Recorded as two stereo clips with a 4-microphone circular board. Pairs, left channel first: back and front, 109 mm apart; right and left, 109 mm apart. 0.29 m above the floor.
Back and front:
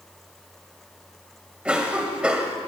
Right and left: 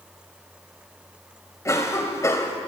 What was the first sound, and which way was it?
A cough, 70° right.